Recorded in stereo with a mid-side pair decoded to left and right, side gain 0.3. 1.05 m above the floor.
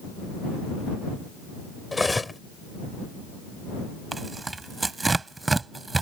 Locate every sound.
1.9 s cutlery clinking: 20° left
4.1 s tearing paper: 35° right